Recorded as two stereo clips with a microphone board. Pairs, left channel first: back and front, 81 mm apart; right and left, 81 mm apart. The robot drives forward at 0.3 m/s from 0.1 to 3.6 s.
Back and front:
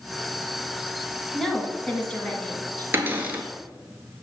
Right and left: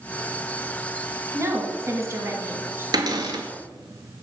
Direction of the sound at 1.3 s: 95° left.